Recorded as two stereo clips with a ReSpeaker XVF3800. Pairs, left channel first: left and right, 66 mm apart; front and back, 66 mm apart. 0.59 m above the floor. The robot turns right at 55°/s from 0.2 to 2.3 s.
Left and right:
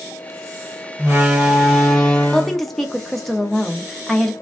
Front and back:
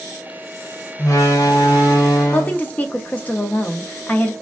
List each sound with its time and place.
1.0 s a door slam: 40° right, 1.4 m; by 2.6 s 30° left, 1.4 m
2.3 s a woman speaking: 10° left, 0.6 m